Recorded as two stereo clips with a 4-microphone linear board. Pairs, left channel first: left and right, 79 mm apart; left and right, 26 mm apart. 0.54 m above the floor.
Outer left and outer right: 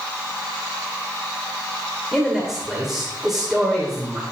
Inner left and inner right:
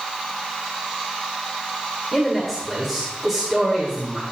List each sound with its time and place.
2.1 s a man speaking: 5° right (ahead or behind), 2 m